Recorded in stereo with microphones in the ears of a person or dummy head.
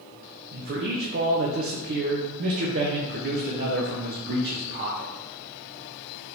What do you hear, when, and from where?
0.5 s a man speaking: 50° right (ahead or behind), 0.6 m